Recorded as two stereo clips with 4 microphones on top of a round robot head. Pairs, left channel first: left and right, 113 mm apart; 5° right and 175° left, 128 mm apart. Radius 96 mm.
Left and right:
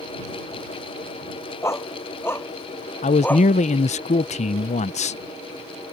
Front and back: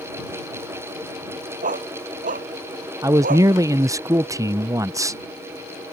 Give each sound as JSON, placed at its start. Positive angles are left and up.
{"t": 1.6, "sound": "a dog barking", "azimuth_deg": 155}
{"t": 3.0, "sound": "a man speaking", "azimuth_deg": 110}